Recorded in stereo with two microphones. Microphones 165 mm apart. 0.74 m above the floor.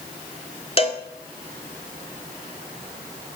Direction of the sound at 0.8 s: 35° left (ahead or behind).